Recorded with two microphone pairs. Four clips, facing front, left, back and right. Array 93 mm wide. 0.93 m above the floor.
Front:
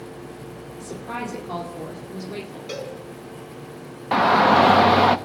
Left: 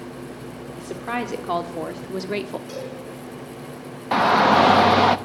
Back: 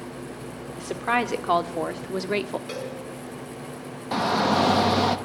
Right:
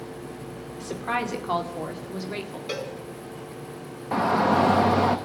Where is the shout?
45° left, 0.7 m.